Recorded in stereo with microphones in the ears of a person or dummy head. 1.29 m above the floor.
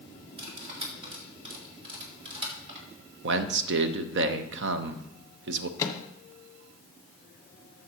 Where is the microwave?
25° left (ahead or behind), 1.2 m.